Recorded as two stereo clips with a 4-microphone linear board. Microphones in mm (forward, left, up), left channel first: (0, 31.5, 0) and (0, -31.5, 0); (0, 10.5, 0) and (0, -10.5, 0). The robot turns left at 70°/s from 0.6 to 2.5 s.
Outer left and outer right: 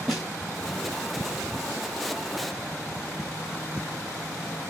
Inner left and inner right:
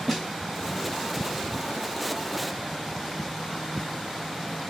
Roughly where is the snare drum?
Centre.